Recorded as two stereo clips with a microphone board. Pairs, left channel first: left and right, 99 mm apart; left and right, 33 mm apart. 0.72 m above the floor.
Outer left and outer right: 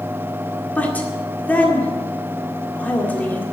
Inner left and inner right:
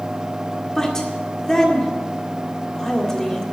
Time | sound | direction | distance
0.8 | a woman speaking | 15° left (ahead or behind) | 1.8 m